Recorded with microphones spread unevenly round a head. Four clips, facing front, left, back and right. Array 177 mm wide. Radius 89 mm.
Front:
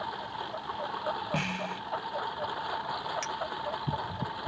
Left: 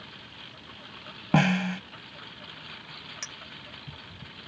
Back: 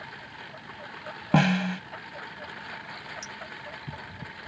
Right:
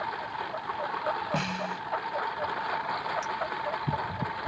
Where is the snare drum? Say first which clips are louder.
Left 6 dB, back 9 dB; 140° left.